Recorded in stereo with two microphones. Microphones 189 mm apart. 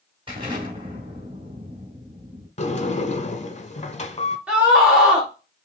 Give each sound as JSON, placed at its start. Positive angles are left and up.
{"t": 0.3, "sound": "an explosion", "side_deg": -30, "distance_m": 1.9}
{"t": 2.6, "sound": "a sliding door", "side_deg": 40, "distance_m": 0.6}
{"t": 4.5, "sound": "a scream", "side_deg": -5, "distance_m": 1.1}